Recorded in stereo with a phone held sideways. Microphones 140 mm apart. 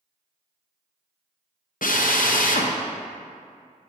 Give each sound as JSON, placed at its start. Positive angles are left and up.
{"t": 1.8, "sound": "a drill", "side_deg": 75, "distance_m": 0.6}